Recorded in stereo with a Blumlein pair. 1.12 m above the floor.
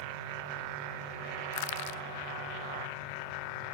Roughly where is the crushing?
Ahead left.